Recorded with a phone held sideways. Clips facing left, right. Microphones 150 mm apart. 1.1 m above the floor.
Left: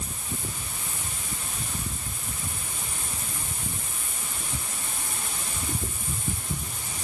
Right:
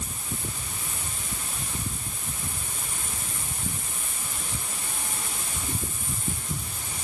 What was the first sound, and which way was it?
Only background noise.